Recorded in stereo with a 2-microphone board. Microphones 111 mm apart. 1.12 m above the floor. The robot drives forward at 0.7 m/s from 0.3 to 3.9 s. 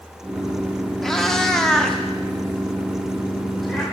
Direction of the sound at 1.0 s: 5° left (ahead or behind).